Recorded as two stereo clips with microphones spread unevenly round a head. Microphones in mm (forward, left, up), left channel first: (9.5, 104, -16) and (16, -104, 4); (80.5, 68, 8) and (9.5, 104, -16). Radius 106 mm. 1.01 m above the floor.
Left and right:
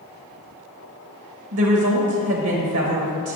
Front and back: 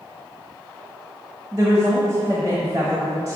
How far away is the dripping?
I don't hear dripping.